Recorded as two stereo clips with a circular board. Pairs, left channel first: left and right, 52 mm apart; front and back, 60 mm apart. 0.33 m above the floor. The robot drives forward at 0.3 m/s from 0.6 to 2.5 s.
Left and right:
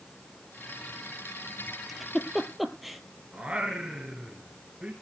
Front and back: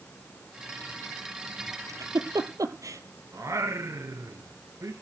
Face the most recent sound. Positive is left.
turn(degrees=-160)